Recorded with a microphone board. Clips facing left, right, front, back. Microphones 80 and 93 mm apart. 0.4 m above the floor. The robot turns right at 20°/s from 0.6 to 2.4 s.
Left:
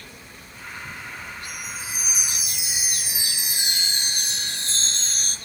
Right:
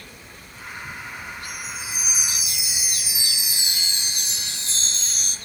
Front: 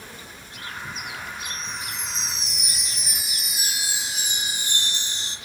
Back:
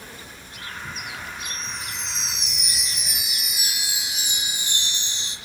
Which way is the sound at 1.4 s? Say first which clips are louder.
Right 1 dB, even; 35° left.